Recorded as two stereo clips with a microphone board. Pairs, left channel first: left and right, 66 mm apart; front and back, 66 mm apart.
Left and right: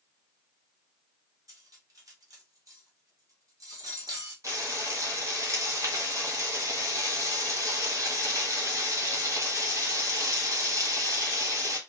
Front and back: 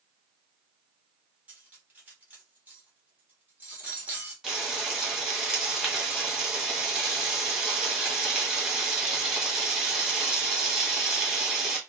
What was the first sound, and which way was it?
Cutlery clinking, 115° right.